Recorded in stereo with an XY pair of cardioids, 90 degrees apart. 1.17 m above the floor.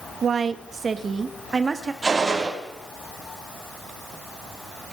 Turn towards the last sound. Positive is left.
turn(degrees=-40)